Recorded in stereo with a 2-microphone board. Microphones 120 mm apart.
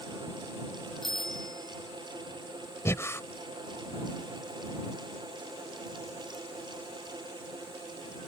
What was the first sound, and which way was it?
A bicycle bell, 5° left (ahead or behind).